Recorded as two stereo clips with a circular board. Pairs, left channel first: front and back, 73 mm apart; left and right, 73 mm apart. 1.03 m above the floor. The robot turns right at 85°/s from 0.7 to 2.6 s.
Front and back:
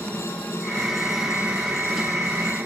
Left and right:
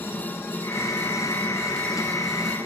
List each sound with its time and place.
0.0 s a helicopter: 55° left; by 2.7 s 140° right